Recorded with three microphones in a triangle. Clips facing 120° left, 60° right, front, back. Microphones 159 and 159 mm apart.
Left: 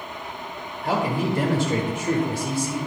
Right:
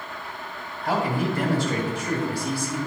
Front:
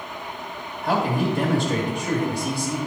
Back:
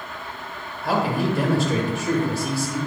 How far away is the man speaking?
About 1.1 m.